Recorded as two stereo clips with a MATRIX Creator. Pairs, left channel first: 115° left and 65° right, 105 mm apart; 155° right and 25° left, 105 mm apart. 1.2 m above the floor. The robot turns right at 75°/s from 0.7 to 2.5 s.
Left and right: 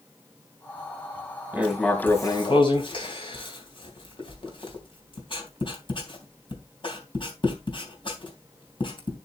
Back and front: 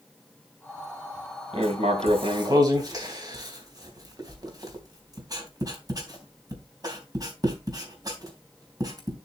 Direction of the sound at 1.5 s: 5° left.